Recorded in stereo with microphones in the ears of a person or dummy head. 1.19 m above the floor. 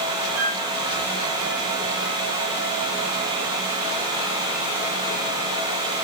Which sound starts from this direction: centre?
A flute, at 0.3 s.